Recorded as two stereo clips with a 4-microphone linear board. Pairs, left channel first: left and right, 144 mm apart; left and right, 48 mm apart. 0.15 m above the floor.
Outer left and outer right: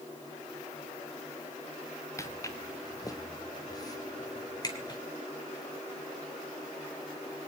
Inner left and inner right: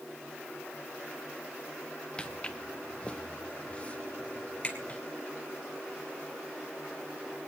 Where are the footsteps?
20° left (ahead or behind), 1.3 m; by 5.0 s 25° left (ahead or behind), 3.5 m.